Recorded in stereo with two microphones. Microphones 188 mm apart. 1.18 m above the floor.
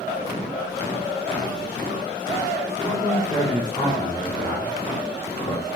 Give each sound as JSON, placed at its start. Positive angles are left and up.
{"t": 2.8, "sound": "a man speaking", "side_deg": -5, "distance_m": 3.5}